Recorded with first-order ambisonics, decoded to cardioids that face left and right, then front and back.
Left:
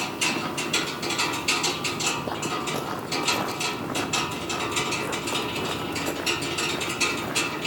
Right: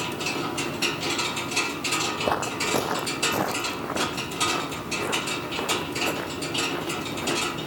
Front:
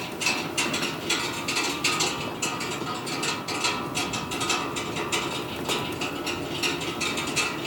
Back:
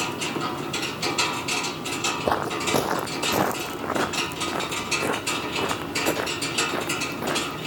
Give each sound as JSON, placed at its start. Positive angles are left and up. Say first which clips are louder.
{"t": 2.2, "sound": "footsteps", "louder": "right 3 dB, back 6 dB", "azimuth_deg": -150}